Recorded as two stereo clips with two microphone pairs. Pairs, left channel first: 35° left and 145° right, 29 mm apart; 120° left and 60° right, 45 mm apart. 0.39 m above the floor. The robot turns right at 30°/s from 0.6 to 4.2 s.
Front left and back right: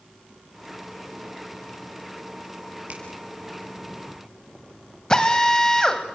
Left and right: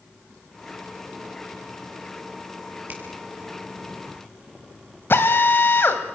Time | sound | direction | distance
2.9 | a finger snap | 110° right | 6 m
5.1 | a drill | 100° left | 2 m